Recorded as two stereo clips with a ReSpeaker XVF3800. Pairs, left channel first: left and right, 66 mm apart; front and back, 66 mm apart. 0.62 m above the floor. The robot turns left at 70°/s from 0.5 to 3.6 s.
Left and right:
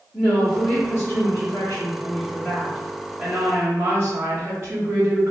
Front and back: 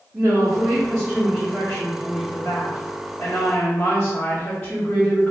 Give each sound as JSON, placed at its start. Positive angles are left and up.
{"t": 0.1, "sound": "a woman speaking", "azimuth_deg": 150, "distance_m": 1.1}